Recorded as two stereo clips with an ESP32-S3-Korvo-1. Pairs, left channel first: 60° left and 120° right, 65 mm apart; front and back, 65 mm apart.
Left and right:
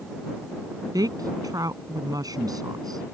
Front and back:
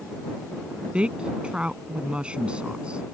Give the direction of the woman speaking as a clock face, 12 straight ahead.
3 o'clock.